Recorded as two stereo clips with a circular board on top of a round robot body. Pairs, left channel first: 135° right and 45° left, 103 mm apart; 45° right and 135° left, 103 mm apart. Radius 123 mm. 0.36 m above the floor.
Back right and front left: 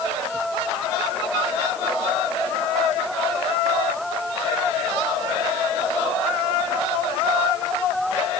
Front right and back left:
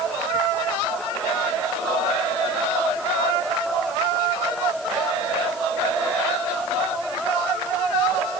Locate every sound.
Only background noise.